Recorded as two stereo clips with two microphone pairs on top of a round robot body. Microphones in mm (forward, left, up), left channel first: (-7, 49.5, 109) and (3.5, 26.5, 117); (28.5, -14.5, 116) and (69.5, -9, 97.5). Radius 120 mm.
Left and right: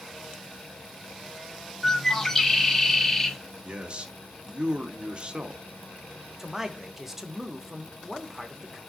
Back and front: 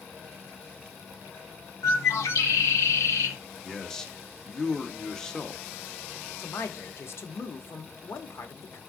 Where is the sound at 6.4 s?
160° right, 1.0 m.